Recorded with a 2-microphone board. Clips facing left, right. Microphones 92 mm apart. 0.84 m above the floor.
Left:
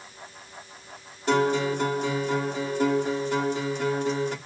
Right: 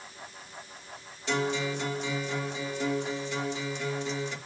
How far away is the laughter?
No laughter in this recording.